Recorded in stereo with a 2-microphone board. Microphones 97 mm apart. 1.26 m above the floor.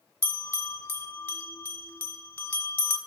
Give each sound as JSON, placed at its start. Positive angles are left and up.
{"t": 0.2, "sound": "a bell", "side_deg": 25, "distance_m": 1.1}